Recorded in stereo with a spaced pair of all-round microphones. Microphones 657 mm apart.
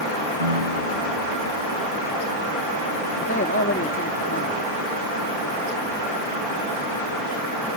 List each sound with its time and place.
0.4 s a piano: 70° right (ahead or behind)
3.2 s a man speaking: 20° left (ahead or behind)